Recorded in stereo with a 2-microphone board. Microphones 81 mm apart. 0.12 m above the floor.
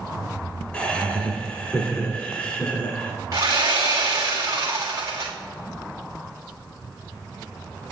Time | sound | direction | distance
0.7 | laughter | 15° left (ahead or behind) | 1.6 m
3.3 | sawing | 50° right (ahead or behind) | 1.7 m